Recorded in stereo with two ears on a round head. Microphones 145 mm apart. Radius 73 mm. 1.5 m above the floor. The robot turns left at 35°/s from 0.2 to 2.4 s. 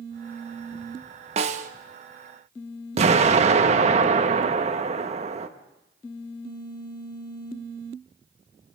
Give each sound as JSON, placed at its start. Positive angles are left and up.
{"t": 1.4, "sound": "a snare drum", "side_deg": -40, "distance_m": 1.1}
{"t": 3.0, "sound": "an explosion", "side_deg": -40, "distance_m": 1.4}